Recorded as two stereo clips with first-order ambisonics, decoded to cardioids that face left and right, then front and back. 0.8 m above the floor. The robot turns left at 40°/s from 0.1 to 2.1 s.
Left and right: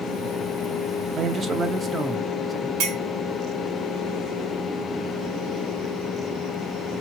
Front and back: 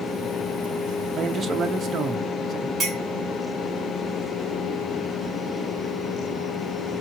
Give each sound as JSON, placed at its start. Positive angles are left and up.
{"t": 1.2, "sound": "a man speaking", "azimuth_deg": -120, "distance_m": 0.5}
{"t": 2.8, "sound": "a clink", "azimuth_deg": -100, "distance_m": 1.5}